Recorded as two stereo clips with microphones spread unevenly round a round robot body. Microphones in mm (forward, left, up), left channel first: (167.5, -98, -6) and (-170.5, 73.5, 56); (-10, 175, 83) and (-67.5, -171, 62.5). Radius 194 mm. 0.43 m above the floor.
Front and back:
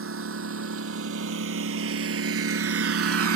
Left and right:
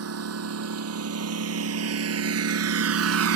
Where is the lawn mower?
150° right.